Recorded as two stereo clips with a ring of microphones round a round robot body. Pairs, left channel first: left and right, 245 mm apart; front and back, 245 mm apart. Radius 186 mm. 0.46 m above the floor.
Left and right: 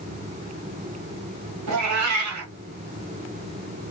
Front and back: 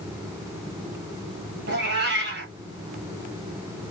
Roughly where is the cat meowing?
Behind right.